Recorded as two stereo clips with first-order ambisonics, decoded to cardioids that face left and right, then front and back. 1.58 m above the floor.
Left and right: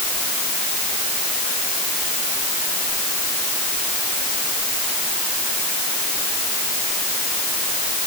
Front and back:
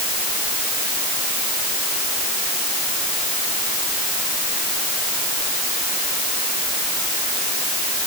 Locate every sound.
Only background noise.